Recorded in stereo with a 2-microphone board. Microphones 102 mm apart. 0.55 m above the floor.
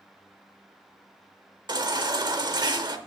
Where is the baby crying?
45° right (ahead or behind), 0.5 m.